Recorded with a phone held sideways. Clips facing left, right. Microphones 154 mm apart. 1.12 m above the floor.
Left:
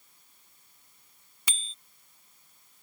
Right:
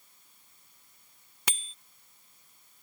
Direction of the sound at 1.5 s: 70° right (ahead or behind).